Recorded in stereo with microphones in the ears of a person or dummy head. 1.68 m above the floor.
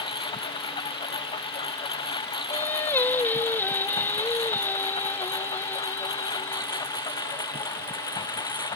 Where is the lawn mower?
25° left (ahead or behind); by 8.8 s 20° left (ahead or behind).